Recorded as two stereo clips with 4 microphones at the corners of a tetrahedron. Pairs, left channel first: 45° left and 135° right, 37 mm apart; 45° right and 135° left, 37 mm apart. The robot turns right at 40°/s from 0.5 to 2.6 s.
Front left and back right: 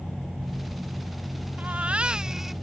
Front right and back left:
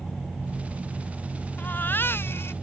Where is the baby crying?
90° right; by 2.5 s 50° right.